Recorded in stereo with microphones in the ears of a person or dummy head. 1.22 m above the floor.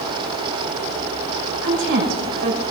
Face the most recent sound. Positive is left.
turn(degrees=-70)  # may be behind; listen again after turning